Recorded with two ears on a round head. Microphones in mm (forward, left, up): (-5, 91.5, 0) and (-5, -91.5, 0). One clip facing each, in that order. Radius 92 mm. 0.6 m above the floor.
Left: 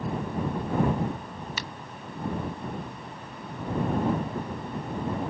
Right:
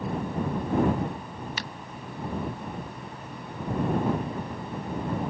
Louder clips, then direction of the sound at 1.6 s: Even; 85° left.